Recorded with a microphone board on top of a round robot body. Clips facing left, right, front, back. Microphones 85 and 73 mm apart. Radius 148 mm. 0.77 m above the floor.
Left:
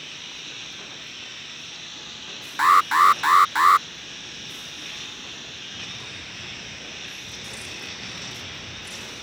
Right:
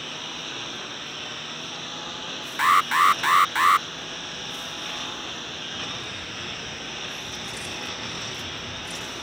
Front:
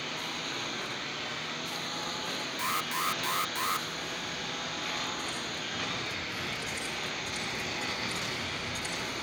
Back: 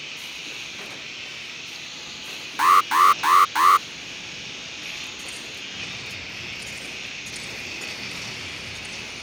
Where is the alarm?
160° left.